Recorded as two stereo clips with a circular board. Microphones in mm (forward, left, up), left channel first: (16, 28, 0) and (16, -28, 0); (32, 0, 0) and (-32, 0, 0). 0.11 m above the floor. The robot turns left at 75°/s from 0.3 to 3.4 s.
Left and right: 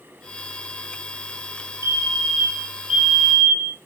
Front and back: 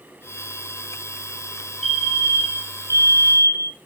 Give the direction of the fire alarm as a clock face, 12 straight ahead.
3 o'clock.